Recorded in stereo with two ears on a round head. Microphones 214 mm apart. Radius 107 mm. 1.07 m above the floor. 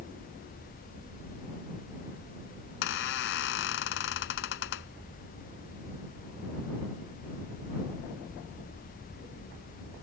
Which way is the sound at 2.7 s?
50° left (ahead or behind).